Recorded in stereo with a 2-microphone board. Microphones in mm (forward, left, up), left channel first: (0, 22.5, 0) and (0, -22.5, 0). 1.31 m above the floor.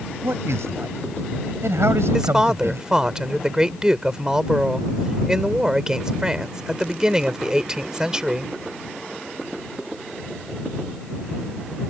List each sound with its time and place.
0.2 s a man speaking: 90° right; by 2.9 s 80° right
2.1 s a woman speaking: 15° right (ahead or behind)